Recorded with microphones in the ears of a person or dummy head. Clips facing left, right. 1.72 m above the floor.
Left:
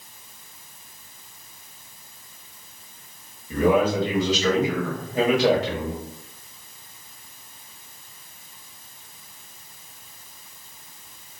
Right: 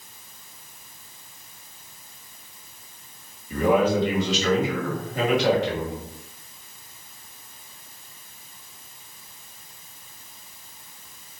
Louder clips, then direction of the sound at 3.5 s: Even; 30° left (ahead or behind).